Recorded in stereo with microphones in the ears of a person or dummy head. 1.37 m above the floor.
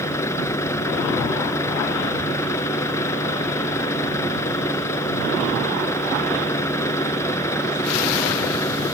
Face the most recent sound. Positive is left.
turn(degrees=20)  # may be behind; listen again after turning